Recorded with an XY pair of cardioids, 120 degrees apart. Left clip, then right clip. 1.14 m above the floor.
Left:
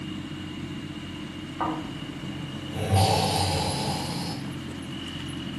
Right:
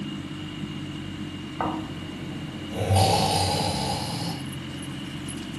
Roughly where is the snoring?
Ahead.